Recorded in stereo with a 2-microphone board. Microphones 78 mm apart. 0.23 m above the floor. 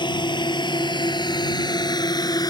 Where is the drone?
75° left (ahead or behind); by 2.5 s 55° left (ahead or behind).